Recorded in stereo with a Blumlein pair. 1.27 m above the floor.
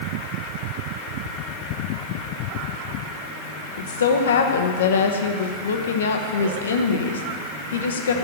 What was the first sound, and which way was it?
A woman speaking, 65° left.